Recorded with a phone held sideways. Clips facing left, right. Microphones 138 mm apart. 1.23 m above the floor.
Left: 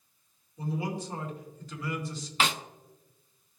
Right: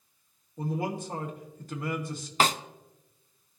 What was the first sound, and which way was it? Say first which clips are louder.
A man speaking: right 2 dB; 60° right (ahead or behind).